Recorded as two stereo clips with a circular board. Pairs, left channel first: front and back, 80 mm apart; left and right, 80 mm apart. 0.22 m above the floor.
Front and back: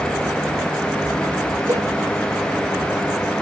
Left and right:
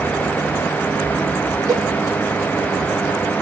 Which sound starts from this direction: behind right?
A cowbell, at 1.7 s.